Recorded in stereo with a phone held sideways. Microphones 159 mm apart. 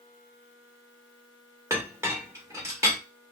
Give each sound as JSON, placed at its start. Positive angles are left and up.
{"t": 1.7, "sound": "a clink", "side_deg": -20, "distance_m": 1.0}